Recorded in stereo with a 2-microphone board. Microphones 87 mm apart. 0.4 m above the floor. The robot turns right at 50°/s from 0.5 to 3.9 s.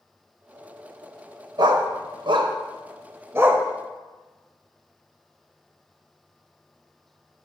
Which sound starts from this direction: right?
A dog barking, at 1.6 s.